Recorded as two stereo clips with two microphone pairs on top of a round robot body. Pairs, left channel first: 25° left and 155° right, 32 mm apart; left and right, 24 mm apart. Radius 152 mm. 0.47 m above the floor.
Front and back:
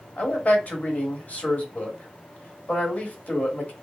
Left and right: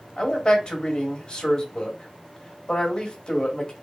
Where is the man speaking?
55° left, 1.4 m.